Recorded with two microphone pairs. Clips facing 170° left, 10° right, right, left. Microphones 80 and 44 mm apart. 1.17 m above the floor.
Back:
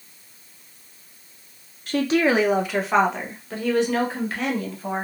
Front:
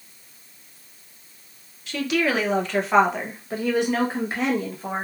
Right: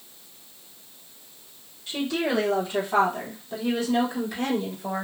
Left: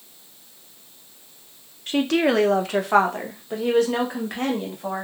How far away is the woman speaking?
About 0.6 m.